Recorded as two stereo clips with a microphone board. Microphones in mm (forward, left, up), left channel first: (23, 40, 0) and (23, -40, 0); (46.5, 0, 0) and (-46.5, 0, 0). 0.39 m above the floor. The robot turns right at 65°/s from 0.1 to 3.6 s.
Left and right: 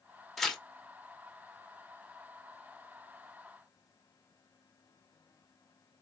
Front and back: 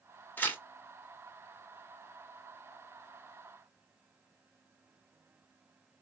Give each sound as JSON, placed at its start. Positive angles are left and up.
{"t": 0.4, "sound": "tearing paper", "azimuth_deg": 5, "distance_m": 1.1}